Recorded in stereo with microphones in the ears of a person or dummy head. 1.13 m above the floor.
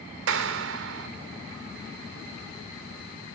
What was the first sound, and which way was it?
A clap, 70° right (ahead or behind).